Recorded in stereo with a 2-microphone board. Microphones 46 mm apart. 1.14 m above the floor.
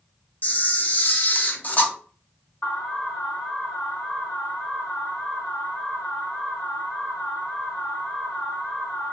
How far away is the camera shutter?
About 0.6 m.